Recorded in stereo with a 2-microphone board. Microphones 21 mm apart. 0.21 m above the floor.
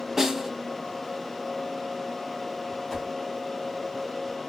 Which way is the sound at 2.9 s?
5° left (ahead or behind).